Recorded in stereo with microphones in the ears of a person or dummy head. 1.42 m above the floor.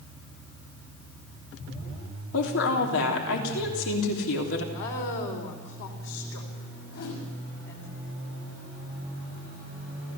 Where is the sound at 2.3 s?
80° left, 3 m.